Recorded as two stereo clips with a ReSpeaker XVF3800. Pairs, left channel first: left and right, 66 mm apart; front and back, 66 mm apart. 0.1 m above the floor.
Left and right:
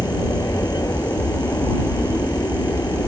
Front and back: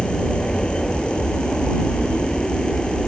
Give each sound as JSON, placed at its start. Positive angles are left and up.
{"t": 0.0, "sound": "an aircraft", "azimuth_deg": 80}